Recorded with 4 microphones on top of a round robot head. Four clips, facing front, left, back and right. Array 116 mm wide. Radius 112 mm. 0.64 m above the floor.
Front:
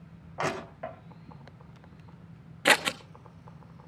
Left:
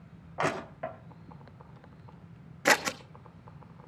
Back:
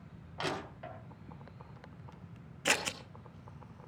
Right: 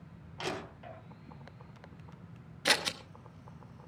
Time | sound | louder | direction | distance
0.4 | crushing | left 8 dB, front 6 dB | 55° left | 3.5 m
2.6 | scissors | left 7 dB, front 9 dB | 40° left | 1.2 m